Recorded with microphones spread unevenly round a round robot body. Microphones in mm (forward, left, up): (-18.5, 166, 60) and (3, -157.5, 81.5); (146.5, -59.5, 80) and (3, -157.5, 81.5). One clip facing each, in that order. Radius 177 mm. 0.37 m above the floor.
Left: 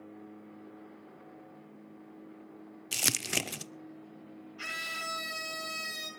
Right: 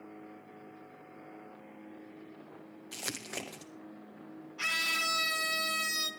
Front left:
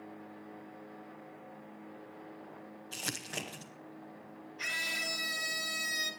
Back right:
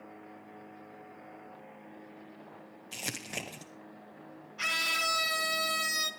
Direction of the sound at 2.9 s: 135° left.